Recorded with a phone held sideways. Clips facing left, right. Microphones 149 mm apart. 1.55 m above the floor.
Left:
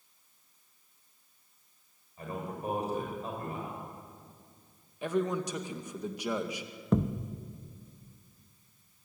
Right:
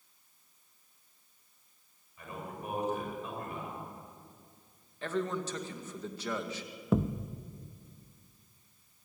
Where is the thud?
5° right (ahead or behind), 0.9 m.